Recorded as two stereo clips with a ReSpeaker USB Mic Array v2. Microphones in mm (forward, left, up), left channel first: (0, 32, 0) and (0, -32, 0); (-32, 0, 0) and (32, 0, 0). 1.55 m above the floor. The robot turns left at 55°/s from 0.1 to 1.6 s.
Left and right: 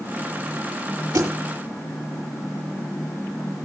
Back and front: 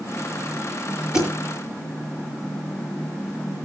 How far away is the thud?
About 9.5 m.